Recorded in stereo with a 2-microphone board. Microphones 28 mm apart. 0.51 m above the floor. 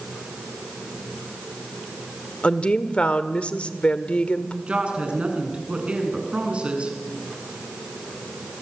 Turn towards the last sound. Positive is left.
turn(degrees=-45)  # may be behind; listen again after turning